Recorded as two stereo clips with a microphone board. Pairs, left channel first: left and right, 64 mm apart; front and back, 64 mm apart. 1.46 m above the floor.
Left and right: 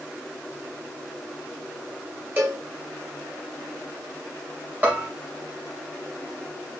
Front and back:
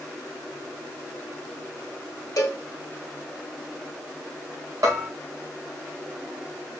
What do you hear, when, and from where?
2.4 s a cowbell: 30° right, 1.4 m
4.8 s a bell: 155° right, 2.5 m